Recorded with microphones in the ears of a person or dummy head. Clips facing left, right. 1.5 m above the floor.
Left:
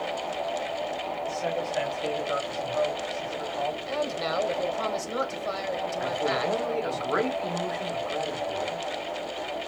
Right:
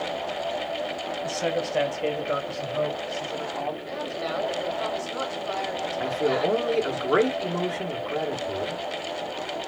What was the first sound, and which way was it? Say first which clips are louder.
A man speaking: right 4 dB; 70° right (ahead or behind).